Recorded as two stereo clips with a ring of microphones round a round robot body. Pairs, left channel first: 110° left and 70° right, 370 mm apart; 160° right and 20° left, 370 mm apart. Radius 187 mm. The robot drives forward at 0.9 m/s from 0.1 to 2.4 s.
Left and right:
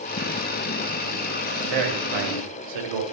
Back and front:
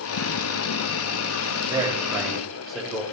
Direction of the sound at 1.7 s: 55° right.